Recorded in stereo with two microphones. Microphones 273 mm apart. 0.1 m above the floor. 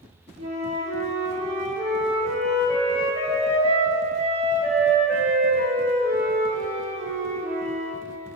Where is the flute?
25° right (ahead or behind), 0.8 m.